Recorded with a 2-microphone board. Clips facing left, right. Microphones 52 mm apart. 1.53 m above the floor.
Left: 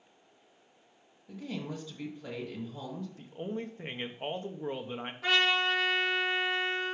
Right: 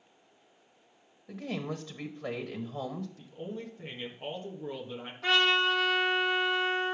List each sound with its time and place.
1.3 s a woman speaking: 55° right (ahead or behind), 1.2 m
3.2 s a man speaking: 35° left (ahead or behind), 1.2 m
5.2 s a trumpet: 10° left (ahead or behind), 3 m